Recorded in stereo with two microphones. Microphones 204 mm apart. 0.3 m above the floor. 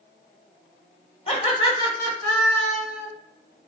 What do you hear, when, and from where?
1.3 s laughter: 35° left (ahead or behind), 1.6 m; by 3.1 s 5° right (ahead or behind), 1.9 m